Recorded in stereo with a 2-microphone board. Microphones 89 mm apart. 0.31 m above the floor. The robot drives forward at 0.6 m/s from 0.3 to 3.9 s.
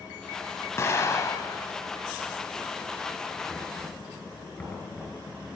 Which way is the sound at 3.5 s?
15° left (ahead or behind).